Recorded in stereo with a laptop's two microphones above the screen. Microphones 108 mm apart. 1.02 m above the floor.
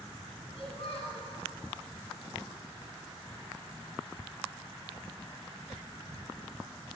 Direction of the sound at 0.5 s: 65° left (ahead or behind).